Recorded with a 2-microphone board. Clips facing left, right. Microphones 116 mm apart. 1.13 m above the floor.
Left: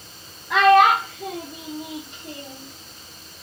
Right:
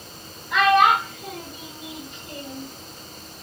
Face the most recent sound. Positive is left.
turn(degrees=15)  # may be behind; listen again after turning